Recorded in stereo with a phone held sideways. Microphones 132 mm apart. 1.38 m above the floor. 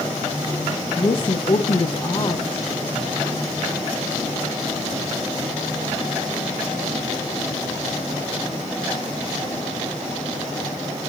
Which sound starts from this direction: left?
A woman speaking, at 1.0 s.